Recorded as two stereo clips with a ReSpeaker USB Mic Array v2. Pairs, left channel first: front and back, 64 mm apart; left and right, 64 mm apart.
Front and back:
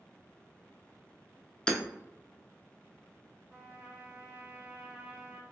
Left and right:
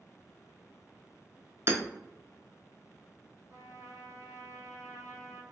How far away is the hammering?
About 0.6 m.